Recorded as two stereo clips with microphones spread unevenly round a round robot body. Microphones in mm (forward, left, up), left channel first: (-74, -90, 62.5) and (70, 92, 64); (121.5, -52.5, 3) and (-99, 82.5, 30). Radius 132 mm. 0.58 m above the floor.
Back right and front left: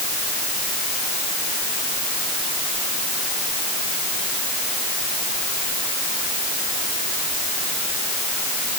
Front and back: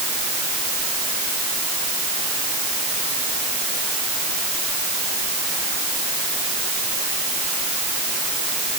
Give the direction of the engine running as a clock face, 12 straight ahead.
No engine running in this recording.